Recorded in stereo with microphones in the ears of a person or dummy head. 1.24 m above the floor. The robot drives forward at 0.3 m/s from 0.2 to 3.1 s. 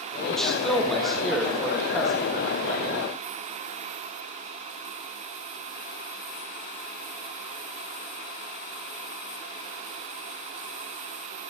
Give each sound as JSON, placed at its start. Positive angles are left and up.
{"t": 0.3, "sound": "a man speaking", "side_deg": 5, "distance_m": 1.1}